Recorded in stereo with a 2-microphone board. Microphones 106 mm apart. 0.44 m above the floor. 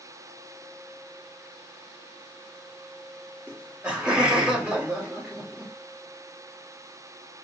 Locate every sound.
3.5 s laughter: 10° right (ahead or behind), 1.1 m